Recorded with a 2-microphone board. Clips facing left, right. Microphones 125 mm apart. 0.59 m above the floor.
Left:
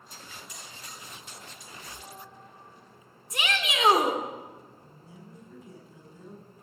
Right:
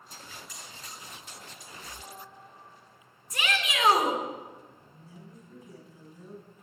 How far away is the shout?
About 2 m.